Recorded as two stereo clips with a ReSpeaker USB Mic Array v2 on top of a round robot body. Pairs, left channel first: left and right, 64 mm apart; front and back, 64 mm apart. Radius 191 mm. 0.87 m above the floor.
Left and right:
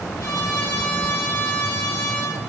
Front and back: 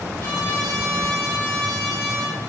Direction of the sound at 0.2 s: 60° left.